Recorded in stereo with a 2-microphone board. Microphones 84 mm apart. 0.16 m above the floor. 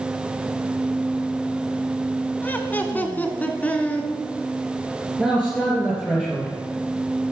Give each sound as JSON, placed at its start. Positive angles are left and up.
{"t": 2.4, "sound": "laughter", "side_deg": 25, "distance_m": 1.0}
{"t": 5.2, "sound": "a man speaking", "side_deg": 10, "distance_m": 3.0}